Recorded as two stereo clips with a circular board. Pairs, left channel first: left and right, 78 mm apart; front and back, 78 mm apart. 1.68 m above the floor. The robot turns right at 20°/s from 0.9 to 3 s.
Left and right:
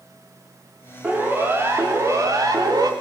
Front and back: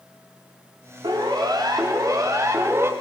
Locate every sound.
1.0 s a siren: 160° right, 5.5 m; by 2.9 s 125° right, 3.5 m